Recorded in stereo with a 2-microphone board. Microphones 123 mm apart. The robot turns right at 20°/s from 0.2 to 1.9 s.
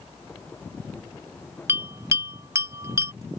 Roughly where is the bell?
Right.